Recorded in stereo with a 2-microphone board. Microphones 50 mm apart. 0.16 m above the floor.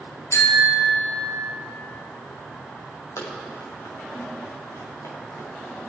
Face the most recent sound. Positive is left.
turn(degrees=90)